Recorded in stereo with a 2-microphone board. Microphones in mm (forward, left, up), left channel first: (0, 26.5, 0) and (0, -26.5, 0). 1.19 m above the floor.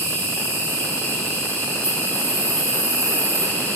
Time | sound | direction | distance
0.0 | an insect | 50° left (ahead or behind) | 1.8 m